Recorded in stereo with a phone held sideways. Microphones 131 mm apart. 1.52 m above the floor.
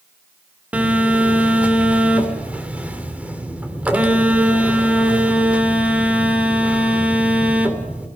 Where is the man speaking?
I don't hear a man speaking.